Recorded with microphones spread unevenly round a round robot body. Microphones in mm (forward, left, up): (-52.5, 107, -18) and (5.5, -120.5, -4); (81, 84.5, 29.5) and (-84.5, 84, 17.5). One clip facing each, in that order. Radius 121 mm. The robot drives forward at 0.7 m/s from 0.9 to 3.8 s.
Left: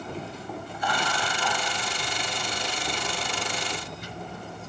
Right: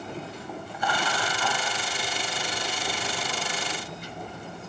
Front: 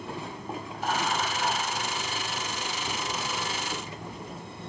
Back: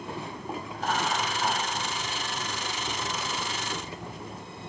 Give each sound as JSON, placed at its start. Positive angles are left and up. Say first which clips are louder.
{"t": 0.7, "sound": "laughter", "louder": "right 1 dB, even", "azimuth_deg": -90, "distance_m": 1.7}